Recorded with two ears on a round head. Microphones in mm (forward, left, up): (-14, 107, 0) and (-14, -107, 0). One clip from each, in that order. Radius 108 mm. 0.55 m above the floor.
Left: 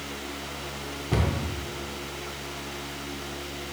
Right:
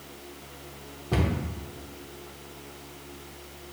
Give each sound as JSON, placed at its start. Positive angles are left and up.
{"t": 1.1, "sound": "a cupboard door", "side_deg": 5, "distance_m": 0.7}